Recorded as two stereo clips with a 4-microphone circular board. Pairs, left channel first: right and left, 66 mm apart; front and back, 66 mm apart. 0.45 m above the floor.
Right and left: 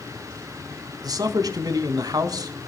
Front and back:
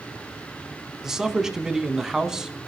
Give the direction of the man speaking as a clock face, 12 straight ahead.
9 o'clock.